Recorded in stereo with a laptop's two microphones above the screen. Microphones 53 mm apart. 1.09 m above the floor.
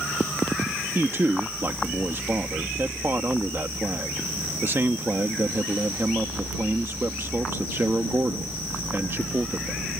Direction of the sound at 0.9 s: 45° right (ahead or behind).